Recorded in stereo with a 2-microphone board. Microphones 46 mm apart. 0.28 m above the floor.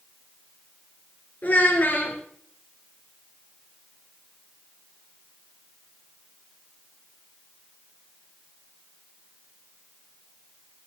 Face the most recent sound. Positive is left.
turn(degrees=40)  # may be behind; listen again after turning